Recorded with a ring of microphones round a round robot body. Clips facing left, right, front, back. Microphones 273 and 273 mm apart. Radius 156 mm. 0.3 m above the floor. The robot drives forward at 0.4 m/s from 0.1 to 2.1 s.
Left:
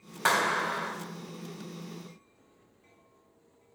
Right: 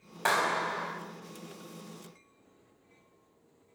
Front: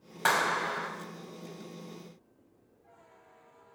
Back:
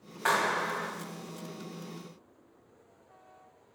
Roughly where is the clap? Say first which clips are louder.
Left 1 dB, back 1 dB; ahead.